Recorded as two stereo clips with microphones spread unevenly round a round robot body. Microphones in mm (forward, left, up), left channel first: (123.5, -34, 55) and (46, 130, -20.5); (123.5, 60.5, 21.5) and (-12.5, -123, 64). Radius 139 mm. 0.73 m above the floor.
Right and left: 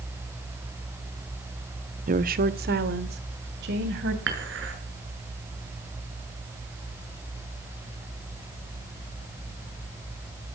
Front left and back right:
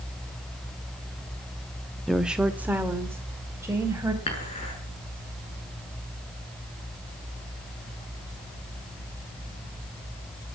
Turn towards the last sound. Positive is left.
turn(degrees=125)